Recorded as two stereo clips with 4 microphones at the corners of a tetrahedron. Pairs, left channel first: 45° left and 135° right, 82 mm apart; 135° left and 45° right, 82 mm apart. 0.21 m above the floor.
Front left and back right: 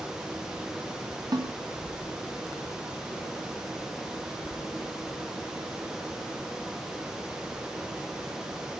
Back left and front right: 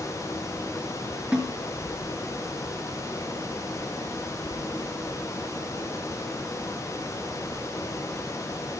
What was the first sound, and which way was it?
A snare drum, 125° right.